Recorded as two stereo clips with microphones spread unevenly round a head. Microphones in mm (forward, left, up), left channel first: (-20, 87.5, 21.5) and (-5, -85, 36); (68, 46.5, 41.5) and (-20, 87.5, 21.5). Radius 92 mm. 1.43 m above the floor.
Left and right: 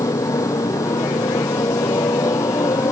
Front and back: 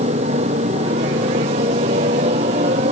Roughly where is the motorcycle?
Behind.